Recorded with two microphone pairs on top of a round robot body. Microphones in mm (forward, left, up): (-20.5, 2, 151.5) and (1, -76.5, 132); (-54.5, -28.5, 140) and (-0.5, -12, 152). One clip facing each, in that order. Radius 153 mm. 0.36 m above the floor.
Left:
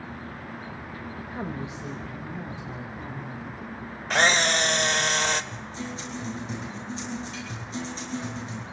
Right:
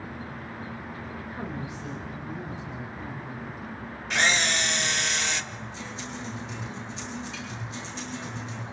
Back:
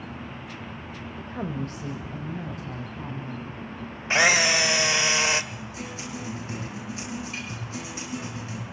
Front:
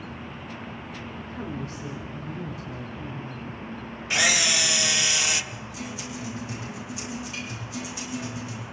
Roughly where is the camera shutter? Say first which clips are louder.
Left 3 dB, back 4 dB; behind left.